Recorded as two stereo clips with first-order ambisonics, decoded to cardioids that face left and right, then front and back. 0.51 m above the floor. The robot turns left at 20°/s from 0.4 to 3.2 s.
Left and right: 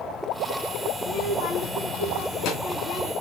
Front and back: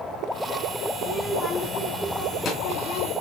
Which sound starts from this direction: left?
A child speaking, at 1.0 s.